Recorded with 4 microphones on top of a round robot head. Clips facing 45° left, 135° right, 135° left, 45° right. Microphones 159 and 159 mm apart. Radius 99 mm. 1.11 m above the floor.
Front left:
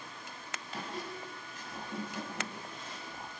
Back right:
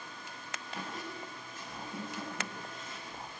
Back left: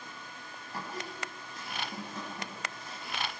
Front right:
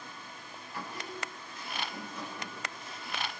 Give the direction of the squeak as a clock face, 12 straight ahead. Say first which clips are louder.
Front left 1 dB, back left 1 dB; 9 o'clock.